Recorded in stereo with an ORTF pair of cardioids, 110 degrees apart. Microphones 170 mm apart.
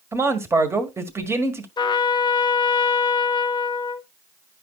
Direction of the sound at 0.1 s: 15° right.